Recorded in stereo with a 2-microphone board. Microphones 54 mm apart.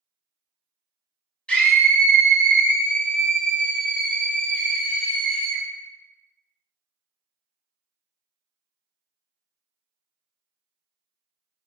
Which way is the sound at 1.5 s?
20° left (ahead or behind).